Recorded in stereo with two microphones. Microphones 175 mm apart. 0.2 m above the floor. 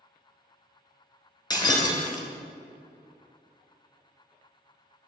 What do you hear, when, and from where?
1.5 s breaking glass: 25° left (ahead or behind), 1.1 m